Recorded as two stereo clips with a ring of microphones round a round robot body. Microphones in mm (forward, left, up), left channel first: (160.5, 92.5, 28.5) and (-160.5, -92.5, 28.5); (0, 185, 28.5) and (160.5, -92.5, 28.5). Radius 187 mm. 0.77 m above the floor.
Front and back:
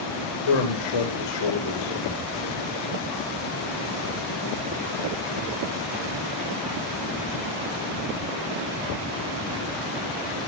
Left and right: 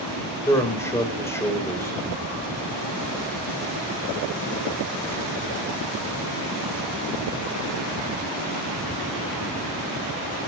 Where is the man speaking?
40° left, 4 m.